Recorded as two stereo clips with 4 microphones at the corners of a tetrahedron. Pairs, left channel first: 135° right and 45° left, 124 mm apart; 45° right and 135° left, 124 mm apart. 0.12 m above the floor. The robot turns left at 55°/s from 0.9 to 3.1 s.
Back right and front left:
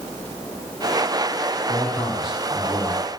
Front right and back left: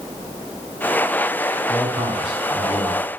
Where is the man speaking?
165° left, 5 m; by 3.1 s 85° left, 5 m.